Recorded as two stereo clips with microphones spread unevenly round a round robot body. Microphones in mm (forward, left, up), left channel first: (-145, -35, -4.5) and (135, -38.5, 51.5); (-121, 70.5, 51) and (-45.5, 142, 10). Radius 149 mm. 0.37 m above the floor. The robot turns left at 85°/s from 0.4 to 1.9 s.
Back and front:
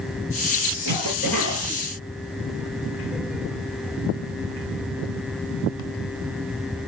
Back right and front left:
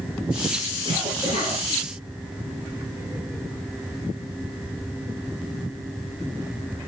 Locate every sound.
0.8 s a cough: 25° right, 7 m; by 1.6 s 90° right, 7 m